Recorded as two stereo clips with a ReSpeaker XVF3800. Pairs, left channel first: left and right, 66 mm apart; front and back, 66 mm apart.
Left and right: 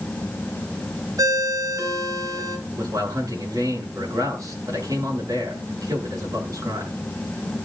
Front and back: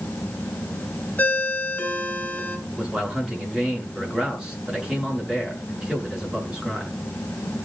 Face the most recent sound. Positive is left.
turn(degrees=-100)